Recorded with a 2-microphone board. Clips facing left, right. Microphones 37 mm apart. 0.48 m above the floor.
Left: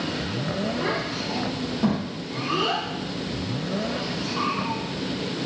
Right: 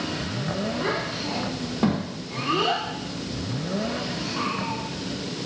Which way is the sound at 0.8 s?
15° right (ahead or behind).